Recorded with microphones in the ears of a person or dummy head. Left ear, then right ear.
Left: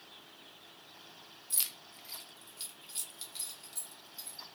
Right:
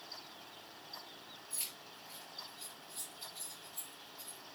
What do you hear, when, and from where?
1.5 s keys jangling: 60° left (ahead or behind), 0.6 m; by 4.4 s 65° left (ahead or behind), 1.9 m